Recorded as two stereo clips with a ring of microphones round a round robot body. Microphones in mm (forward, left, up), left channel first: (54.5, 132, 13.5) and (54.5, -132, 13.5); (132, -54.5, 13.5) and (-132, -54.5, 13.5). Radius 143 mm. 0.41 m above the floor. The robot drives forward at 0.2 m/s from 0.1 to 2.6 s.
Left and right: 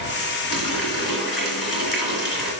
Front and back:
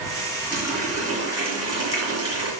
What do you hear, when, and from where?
0.5 s a running tap: 95° left, 3.5 m; by 2.5 s 105° left, 3.5 m